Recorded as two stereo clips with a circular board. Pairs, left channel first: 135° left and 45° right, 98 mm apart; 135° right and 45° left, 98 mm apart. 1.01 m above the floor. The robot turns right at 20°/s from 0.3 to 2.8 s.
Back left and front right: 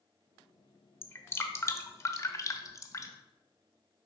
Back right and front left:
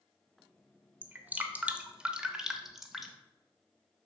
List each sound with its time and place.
1.0 s dripping: 95° left, 0.8 m; by 3.1 s 130° left, 0.8 m